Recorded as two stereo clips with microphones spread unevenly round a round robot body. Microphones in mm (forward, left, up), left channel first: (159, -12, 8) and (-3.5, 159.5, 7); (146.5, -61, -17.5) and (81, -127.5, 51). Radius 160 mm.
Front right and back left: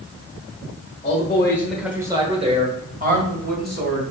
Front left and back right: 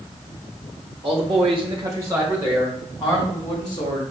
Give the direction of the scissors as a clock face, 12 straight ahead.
I don't hear scissors.